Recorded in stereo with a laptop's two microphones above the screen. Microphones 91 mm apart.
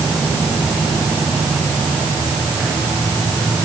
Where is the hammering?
No hammering in this recording.